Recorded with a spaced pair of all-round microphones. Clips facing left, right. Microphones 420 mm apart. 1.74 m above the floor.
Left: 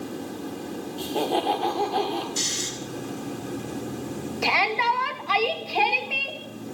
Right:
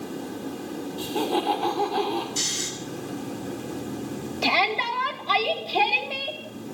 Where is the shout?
50° right (ahead or behind), 3 m.